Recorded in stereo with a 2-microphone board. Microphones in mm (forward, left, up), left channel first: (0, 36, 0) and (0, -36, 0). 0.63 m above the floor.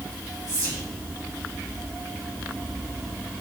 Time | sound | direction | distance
0.5 | whispering | 60° right (ahead or behind) | 1.2 m